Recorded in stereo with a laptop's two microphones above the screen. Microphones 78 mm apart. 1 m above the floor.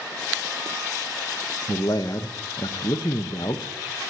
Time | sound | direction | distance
1.7 | a man speaking | 65° left (ahead or behind) | 0.5 m